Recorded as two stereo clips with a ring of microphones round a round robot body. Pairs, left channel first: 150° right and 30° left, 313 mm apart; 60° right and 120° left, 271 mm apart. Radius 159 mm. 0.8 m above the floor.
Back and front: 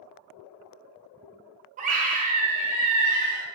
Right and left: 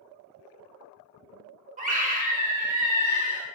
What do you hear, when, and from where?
1.8 s a scream: 80° left, 0.6 m